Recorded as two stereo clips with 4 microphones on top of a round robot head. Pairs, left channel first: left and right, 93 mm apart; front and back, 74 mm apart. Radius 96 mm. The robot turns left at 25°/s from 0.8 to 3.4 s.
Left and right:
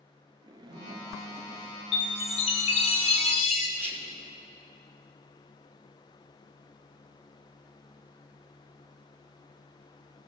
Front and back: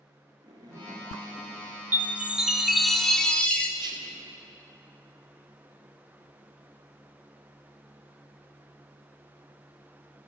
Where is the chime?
110° left, 1.3 m; by 3.7 s 75° left, 1.3 m.